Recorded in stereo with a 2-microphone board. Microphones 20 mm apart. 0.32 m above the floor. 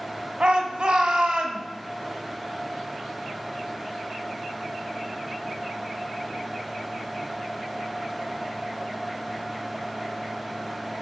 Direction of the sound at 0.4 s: 55° right (ahead or behind).